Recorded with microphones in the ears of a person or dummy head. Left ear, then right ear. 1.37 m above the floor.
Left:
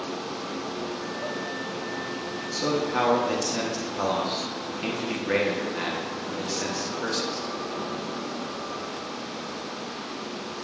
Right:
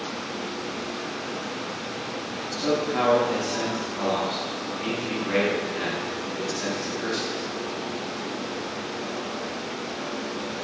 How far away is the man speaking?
About 1.1 m.